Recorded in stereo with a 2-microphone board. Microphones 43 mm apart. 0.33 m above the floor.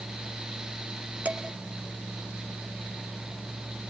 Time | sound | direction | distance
1.2 | dishes clattering | 30° right (ahead or behind) | 2 m